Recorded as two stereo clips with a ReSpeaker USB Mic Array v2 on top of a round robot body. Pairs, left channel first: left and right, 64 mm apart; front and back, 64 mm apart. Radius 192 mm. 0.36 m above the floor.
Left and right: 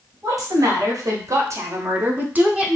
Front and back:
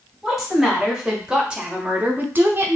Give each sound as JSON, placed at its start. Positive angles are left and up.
{"t": 0.2, "sound": "a woman speaking", "azimuth_deg": -90, "distance_m": 1.7}